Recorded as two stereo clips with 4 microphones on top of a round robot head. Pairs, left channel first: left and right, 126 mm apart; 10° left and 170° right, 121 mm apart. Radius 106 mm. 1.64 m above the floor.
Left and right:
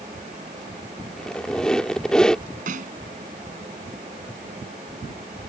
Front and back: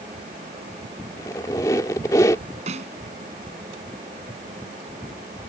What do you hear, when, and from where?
1.2 s a squeak: 15° left
2.7 s a snare drum: 125° right